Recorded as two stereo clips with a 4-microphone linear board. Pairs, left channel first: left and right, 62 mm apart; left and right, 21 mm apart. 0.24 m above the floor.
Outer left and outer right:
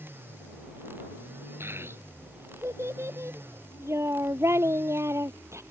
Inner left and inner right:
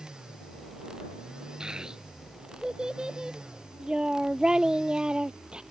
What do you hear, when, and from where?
1.6 s a child speaking: 35° right (ahead or behind); by 5.6 s 45° right (ahead or behind)